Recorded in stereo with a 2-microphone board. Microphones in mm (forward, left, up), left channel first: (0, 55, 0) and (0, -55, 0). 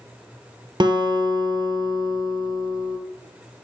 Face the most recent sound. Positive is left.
turn(degrees=-45)  # may be behind; listen again after turning